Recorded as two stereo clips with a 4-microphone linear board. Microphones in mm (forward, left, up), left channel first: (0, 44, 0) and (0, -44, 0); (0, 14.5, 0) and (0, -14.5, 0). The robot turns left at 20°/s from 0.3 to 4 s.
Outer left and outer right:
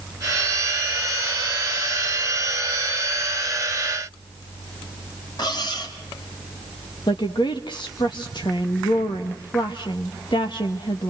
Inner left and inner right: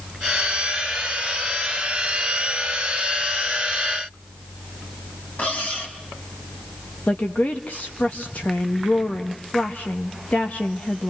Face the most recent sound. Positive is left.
turn(degrees=60)  # may be behind; listen again after turning